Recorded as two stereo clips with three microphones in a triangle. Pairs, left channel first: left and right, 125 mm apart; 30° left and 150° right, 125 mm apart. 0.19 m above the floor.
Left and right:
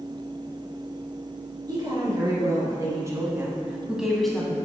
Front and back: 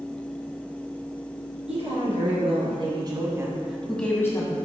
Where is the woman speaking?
145° right, 3 m; by 4.6 s 15° left, 1.5 m.